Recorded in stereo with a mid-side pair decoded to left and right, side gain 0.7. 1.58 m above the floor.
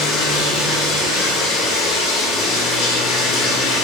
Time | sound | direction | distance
0.0 | running water | 60° left | 0.8 m